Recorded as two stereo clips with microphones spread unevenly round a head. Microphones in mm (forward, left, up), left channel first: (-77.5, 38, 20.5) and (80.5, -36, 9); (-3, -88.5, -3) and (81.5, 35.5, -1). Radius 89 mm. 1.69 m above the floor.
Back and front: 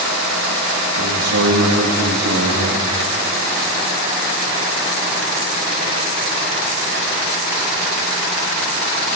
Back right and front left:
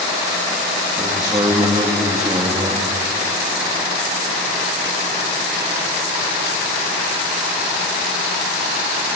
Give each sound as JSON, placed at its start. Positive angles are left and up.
{"t": 1.0, "sound": "a man speaking", "azimuth_deg": -10, "distance_m": 2.5}